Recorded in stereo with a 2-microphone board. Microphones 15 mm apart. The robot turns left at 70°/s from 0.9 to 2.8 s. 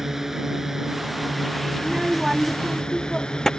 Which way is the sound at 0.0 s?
155° right.